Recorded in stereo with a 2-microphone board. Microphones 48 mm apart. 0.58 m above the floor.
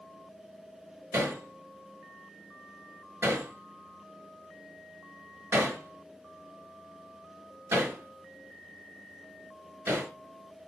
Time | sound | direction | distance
1.1 | hammering | 60° right (ahead or behind) | 5 m